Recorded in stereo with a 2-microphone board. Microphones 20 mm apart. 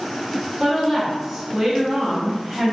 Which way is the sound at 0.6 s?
10° right (ahead or behind).